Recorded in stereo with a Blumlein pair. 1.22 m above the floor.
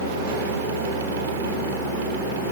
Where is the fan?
60° right.